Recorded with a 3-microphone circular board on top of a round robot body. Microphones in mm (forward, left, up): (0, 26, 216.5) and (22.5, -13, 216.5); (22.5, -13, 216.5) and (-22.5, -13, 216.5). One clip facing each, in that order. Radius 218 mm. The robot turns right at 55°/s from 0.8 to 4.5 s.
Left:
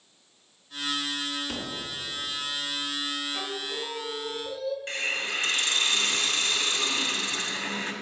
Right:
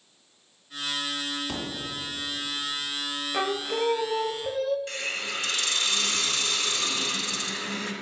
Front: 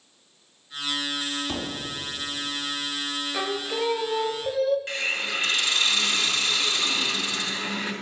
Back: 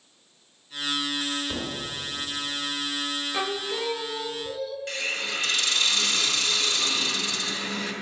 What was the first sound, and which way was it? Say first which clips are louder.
A thud: right 1 dB, front 1 dB; 10° right.